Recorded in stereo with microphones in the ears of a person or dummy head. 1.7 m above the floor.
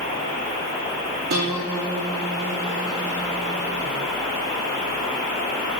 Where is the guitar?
50° right (ahead or behind), 4 m.